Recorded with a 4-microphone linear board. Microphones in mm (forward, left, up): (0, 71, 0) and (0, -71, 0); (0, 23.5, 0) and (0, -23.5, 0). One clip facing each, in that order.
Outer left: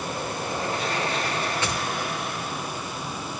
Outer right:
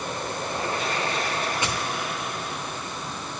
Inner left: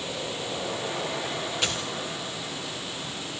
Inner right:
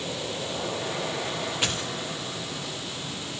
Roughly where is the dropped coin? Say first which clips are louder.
Even, even; centre.